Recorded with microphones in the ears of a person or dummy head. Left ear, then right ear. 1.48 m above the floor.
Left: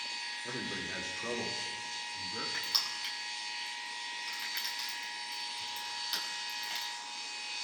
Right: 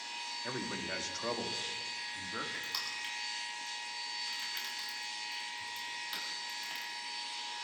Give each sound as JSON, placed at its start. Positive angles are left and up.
{"t": 0.4, "sound": "a man speaking", "side_deg": -80, "distance_m": 2.5}
{"t": 2.5, "sound": "crushing", "side_deg": 10, "distance_m": 6.5}